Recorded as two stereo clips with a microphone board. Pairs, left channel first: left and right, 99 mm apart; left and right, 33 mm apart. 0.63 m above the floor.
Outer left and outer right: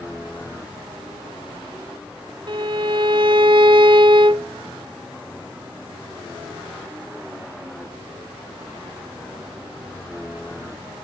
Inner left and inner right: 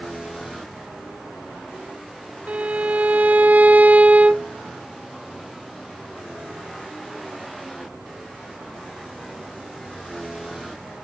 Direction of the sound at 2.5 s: 55° right (ahead or behind).